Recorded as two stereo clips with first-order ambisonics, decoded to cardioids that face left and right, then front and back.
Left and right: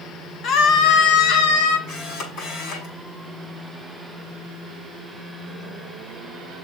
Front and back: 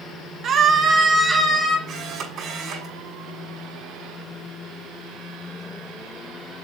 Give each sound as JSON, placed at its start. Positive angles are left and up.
{"t": 0.4, "sound": "a scream", "azimuth_deg": 135, "distance_m": 1.7}
{"t": 1.9, "sound": "a camera shutter", "azimuth_deg": 125, "distance_m": 5.5}